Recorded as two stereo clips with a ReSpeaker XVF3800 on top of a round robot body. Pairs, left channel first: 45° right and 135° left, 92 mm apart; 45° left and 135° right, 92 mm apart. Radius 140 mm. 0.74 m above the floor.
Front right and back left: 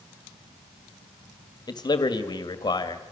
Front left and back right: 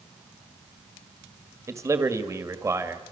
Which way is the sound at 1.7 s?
80° right.